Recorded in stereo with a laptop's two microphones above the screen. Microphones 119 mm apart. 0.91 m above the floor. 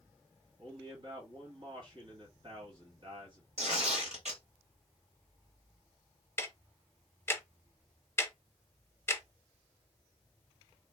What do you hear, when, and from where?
0.6 s a man speaking: 45° right (ahead or behind), 1.3 m
3.6 s tearing paper: 65° right (ahead or behind), 1.8 m
6.4 s ticking: 20° left (ahead or behind), 0.7 m